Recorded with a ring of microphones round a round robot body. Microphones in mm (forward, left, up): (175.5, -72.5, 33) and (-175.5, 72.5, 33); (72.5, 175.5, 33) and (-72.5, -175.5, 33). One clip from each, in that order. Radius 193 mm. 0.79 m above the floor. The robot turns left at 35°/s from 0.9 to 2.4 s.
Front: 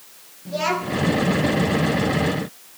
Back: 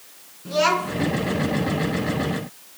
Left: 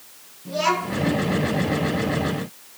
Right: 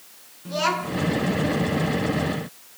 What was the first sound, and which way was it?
A child speaking, 170° right.